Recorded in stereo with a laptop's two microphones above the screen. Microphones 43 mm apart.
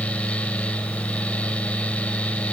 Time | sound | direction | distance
0.0 | a fan | 30° left (ahead or behind) | 1.7 m